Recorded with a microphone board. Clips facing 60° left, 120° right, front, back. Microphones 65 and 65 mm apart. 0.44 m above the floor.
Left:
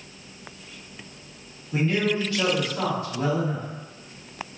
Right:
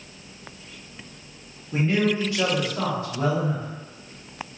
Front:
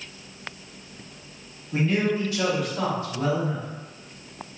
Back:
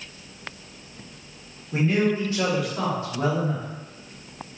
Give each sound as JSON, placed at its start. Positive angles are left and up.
{"t": 1.7, "sound": "a man speaking", "azimuth_deg": -130, "distance_m": 1.5}